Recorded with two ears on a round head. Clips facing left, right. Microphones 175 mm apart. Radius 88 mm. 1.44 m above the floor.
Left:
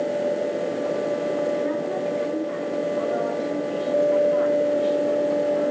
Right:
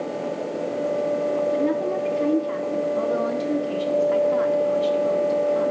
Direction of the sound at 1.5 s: 75° right (ahead or behind).